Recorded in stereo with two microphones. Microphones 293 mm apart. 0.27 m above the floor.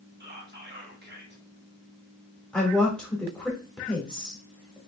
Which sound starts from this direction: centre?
A woman speaking, at 2.5 s.